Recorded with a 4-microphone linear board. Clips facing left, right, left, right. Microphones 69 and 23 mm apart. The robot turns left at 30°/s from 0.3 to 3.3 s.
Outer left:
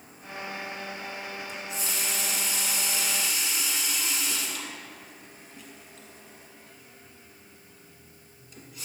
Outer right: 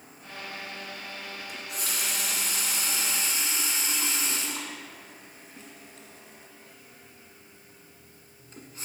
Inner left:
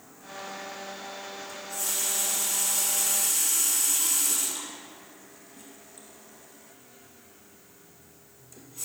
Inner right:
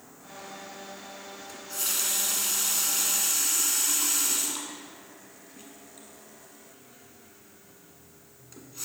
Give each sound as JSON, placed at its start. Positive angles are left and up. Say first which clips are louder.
{"t": 1.5, "sound": "a running tap", "louder": "outer left 1 dB, inner right 2 dB", "side_deg": -60, "distance_m": 1.2}